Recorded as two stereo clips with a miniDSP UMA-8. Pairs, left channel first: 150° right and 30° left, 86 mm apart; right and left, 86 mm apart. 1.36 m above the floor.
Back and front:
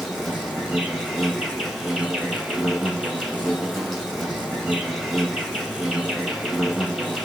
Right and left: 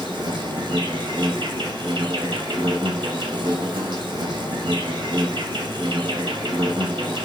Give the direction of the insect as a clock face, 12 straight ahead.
8 o'clock.